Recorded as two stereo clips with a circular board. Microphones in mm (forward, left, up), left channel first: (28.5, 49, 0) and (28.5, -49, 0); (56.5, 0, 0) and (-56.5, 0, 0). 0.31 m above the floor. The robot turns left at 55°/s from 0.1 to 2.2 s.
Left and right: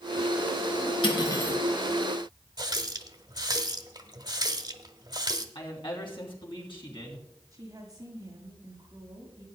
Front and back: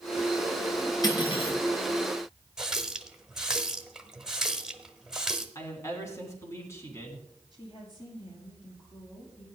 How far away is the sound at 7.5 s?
About 6 m.